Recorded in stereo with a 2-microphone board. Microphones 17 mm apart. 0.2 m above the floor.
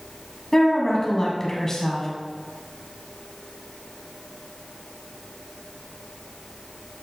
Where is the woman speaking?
30° left (ahead or behind), 1.5 m.